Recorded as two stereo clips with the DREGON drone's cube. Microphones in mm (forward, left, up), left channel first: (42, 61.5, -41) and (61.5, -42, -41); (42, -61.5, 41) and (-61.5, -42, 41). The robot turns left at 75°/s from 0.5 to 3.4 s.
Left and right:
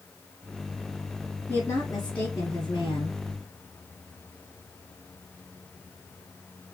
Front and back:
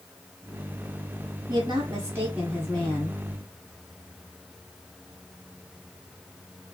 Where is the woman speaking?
160° left, 1.7 m; by 3.2 s 35° left, 1.7 m.